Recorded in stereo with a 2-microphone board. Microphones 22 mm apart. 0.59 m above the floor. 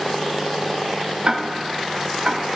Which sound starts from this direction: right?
Ticking, at 1.2 s.